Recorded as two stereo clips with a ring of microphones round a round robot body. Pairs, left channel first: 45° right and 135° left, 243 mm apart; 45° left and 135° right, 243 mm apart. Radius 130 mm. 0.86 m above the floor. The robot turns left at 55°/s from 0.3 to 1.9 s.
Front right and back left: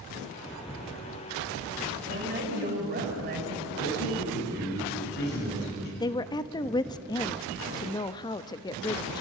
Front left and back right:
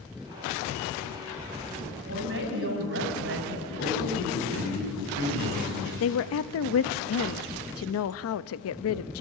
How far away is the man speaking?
About 8.5 m.